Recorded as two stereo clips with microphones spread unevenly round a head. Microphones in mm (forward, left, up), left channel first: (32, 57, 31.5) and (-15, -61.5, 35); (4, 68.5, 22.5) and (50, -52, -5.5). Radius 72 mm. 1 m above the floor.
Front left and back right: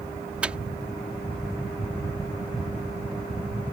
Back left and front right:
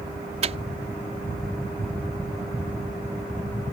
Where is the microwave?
30° right.